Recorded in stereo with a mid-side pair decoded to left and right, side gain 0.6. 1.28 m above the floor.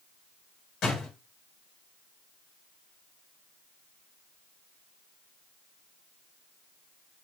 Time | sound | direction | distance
0.8 | a door slam | 50° left | 6.5 m